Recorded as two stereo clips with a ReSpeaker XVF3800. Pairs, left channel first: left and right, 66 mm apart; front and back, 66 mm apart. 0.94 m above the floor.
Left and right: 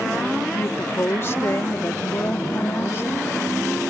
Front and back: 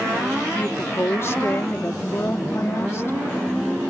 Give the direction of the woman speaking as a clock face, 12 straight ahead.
11 o'clock.